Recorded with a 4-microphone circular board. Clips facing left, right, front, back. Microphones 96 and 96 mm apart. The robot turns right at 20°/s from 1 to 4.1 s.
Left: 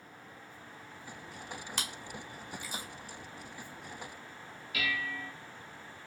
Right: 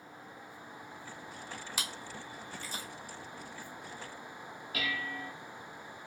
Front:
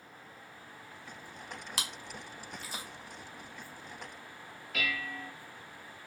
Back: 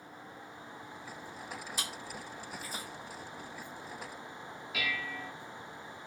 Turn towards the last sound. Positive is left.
turn(degrees=-95)